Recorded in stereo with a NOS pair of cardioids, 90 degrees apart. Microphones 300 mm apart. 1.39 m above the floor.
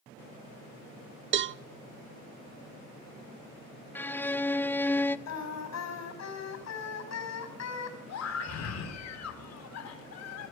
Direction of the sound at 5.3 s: 60° left.